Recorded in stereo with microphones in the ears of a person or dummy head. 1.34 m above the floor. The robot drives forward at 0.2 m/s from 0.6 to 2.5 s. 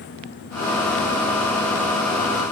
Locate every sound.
Only background noise.